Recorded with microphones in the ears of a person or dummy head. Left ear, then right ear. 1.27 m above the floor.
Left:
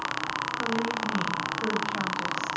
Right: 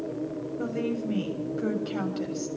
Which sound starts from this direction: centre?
A woman speaking, at 0.6 s.